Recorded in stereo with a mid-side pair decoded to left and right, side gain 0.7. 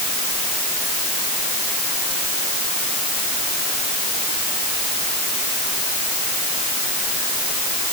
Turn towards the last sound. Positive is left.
No sound to turn to.